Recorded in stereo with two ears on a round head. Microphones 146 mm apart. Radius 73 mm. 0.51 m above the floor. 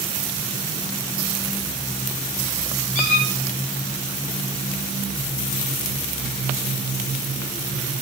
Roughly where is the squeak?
Left.